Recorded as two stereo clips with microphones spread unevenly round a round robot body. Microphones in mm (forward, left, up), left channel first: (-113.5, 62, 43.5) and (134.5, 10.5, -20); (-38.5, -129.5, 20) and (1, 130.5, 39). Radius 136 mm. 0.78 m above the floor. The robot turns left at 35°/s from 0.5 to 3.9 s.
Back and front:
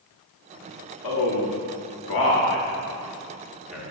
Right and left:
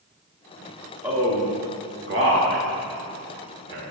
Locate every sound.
1.0 s a man speaking: 165° left, 1.7 m; by 3.9 s 65° left, 1.7 m